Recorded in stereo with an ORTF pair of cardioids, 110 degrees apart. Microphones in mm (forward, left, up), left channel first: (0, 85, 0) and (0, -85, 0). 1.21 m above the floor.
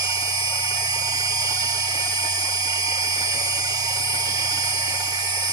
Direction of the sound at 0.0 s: 25° right.